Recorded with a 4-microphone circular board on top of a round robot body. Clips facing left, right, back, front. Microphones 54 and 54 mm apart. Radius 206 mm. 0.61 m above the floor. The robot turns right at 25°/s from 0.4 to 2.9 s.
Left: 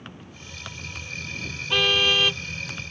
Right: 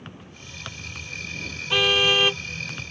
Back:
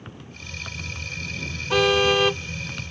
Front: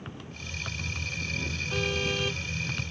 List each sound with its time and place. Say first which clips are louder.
1.7 s a car horn: right 1 dB, back 13 dB; 175° right; by 2.4 s 160° right